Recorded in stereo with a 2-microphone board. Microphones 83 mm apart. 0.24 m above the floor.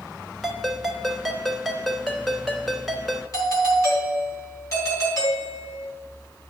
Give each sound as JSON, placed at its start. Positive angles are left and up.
{"t": 0.4, "sound": "a ringtone", "side_deg": 0, "distance_m": 0.9}
{"t": 3.3, "sound": "a doorbell", "side_deg": 45, "distance_m": 3.0}